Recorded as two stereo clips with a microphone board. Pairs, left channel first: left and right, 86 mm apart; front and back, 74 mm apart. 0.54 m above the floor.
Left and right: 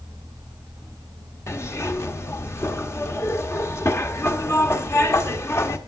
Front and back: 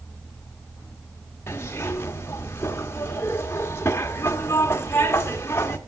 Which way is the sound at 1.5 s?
45° left.